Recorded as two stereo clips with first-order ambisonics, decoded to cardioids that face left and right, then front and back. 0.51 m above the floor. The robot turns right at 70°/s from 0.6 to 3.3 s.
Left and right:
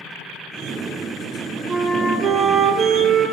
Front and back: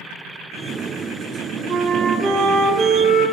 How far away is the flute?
About 0.8 m.